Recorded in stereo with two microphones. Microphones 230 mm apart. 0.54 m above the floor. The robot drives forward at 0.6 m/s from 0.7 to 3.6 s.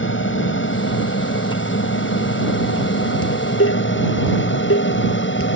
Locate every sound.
0.0 s an aircraft: 60° left (ahead or behind); by 5.6 s 55° left (ahead or behind)
3.2 s dishes clattering: 70° left (ahead or behind)